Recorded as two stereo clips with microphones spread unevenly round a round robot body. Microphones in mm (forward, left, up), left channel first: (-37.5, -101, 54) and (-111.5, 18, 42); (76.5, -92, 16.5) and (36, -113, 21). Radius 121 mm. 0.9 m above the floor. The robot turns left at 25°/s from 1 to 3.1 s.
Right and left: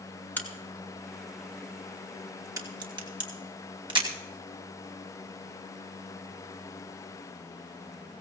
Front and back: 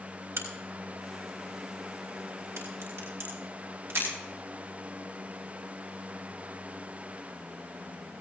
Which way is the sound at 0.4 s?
135° right.